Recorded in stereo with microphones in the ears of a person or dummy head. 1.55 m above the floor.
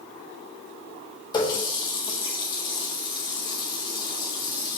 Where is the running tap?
25° left (ahead or behind), 1.0 m.